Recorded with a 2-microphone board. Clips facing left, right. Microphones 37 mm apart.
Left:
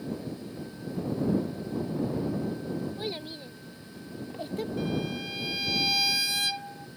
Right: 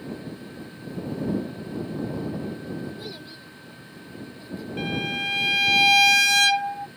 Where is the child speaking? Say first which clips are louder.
Left 3 dB; 25° left (ahead or behind); by 4.7 s 70° left (ahead or behind).